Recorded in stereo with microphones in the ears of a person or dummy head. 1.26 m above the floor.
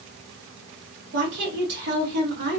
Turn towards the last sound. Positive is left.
turn(degrees=-60)  # may be behind; listen again after turning